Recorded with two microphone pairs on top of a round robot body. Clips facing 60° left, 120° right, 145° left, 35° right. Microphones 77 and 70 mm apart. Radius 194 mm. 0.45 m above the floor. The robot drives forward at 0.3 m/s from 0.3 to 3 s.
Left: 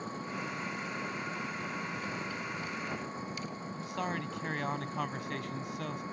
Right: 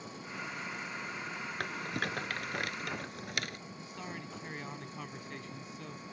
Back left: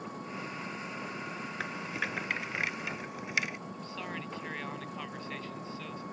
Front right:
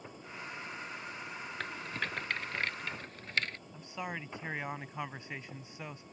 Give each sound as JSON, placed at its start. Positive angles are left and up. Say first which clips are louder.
{"t": 0.0, "sound": "an engine running", "louder": "left 5 dB, back left 6 dB", "azimuth_deg": 115}
{"t": 1.6, "sound": "a rattle", "louder": "right 1 dB, back left 2 dB", "azimuth_deg": -140}
{"t": 3.7, "sound": "a man speaking", "louder": "left 8 dB, back left 1 dB", "azimuth_deg": 35}